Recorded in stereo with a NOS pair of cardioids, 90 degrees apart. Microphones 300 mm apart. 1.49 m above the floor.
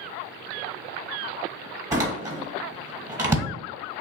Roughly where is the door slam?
Ahead.